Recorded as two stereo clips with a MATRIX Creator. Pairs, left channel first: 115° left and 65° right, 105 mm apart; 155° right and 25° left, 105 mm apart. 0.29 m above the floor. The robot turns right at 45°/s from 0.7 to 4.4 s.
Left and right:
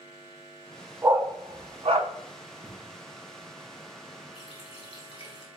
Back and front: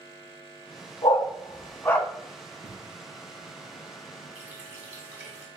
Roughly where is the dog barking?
Behind right.